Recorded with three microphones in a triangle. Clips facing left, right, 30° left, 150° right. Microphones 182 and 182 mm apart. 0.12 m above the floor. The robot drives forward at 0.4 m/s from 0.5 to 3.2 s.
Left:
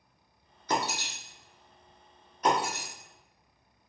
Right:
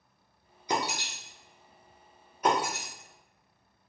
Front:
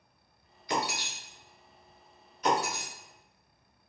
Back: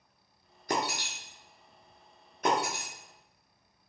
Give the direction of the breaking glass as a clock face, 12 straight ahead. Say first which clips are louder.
Even, back 1 dB; 5 o'clock.